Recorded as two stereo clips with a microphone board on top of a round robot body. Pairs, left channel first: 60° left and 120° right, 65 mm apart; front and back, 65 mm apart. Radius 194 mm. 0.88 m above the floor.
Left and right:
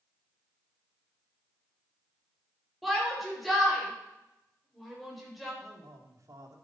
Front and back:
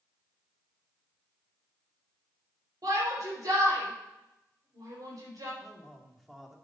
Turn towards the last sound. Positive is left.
turn(degrees=-90)